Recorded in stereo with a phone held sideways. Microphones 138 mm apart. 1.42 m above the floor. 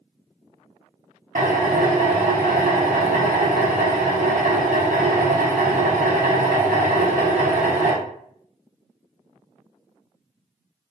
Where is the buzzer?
I don't hear a buzzer.